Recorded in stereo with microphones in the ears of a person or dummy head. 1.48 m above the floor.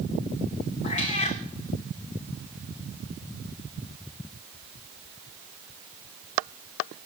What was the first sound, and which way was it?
A cat meowing, 35° left (ahead or behind).